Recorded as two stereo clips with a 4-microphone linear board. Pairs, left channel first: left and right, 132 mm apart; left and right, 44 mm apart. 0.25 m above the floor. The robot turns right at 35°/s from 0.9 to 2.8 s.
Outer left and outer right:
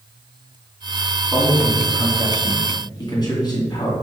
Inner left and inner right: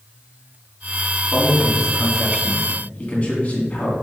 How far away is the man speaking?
About 2 m.